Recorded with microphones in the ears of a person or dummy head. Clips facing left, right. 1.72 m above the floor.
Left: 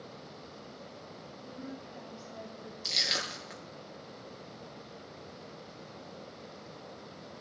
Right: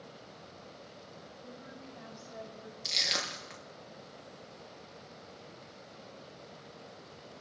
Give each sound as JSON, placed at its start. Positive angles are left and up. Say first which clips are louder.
{"t": 1.4, "sound": "a woman speaking", "louder": "left 6 dB", "side_deg": -40, "distance_m": 8.0}
{"t": 2.9, "sound": "crushing", "louder": "even", "side_deg": 5, "distance_m": 3.0}